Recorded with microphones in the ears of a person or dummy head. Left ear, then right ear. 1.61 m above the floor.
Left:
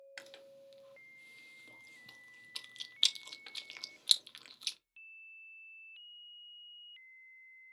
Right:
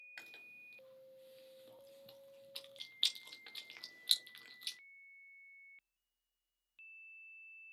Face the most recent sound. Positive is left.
turn(degrees=10)  # may be behind; listen again after turning